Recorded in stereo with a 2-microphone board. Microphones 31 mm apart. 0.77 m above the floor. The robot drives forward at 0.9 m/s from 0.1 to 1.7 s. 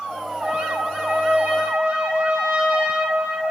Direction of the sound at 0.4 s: 30° right (ahead or behind).